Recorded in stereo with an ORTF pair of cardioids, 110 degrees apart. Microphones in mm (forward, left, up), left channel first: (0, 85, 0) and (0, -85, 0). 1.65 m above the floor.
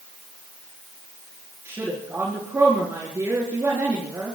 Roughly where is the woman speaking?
Ahead.